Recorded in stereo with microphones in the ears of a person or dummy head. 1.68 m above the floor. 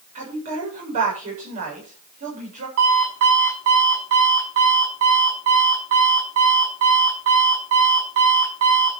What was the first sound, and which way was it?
A woman speaking, 40° right (ahead or behind).